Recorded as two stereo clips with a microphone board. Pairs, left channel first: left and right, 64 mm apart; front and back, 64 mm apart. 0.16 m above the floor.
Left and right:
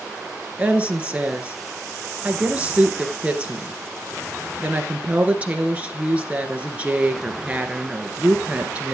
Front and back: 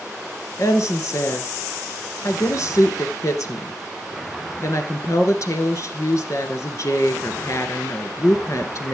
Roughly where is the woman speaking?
Ahead right.